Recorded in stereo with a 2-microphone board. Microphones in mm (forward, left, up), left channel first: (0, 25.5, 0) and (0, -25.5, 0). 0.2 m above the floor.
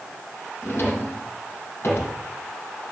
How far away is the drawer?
About 4 m.